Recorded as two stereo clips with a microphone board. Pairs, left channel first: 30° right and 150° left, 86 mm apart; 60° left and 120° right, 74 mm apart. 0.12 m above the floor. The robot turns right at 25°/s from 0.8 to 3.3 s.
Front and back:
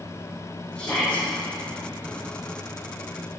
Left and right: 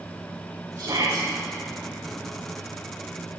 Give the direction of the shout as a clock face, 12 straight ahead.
3 o'clock.